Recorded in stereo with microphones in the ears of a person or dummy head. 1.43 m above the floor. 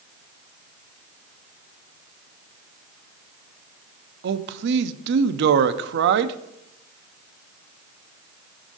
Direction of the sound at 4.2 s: 65° right (ahead or behind).